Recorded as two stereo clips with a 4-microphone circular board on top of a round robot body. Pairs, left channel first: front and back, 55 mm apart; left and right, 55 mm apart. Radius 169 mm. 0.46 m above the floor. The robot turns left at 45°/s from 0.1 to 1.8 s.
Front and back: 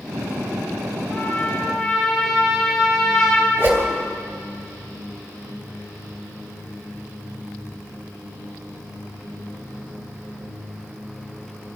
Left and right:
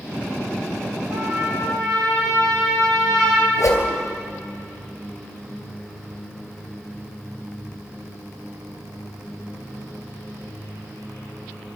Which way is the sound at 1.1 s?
50° right.